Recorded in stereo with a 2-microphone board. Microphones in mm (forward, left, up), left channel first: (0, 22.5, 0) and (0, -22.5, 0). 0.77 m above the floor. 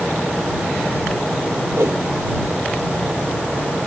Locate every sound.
1.8 s a whoosh: 70° right (ahead or behind)